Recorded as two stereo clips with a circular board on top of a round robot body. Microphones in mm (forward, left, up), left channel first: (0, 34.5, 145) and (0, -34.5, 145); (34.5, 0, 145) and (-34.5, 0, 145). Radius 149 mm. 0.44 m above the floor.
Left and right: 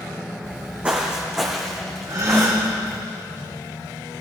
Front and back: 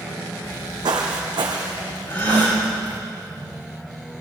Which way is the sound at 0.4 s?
155° right.